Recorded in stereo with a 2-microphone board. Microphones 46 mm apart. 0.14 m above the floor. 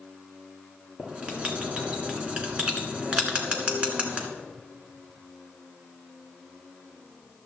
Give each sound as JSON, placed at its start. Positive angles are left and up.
{"t": 1.0, "sound": "writing", "side_deg": -25, "distance_m": 1.7}